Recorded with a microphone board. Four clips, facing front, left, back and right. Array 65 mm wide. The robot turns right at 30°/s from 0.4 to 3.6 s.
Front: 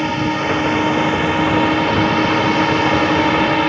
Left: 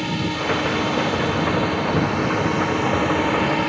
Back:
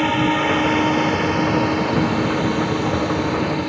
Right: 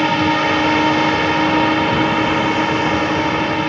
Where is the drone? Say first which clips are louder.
Right 9 dB, back 1 dB; 100° right; by 3.7 s 5° right.